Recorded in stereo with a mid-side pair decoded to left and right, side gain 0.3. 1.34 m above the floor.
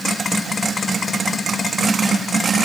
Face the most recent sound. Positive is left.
No sound to turn to.